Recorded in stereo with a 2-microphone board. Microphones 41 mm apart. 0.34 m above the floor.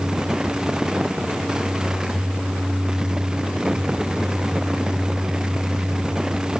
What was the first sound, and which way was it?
Only background noise.